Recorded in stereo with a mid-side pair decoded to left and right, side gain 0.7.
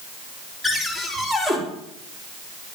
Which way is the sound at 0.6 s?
Straight ahead.